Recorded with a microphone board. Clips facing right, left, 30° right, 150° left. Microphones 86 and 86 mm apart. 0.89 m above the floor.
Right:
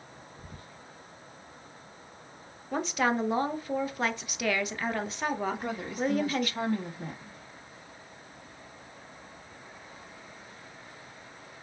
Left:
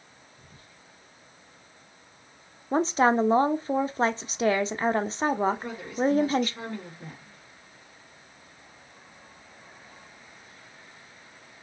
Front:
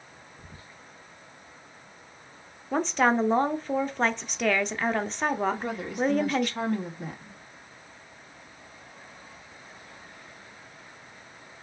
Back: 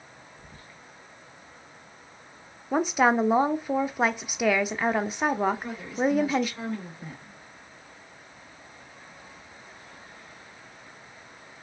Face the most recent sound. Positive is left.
turn(degrees=-55)